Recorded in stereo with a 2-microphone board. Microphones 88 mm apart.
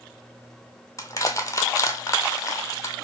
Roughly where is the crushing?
Left.